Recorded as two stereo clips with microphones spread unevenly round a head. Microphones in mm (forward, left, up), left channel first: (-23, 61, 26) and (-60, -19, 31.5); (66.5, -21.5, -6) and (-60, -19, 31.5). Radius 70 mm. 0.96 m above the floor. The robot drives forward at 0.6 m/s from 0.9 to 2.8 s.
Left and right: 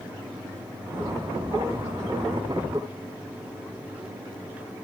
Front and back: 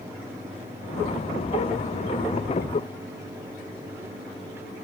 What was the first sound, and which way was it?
Only background noise.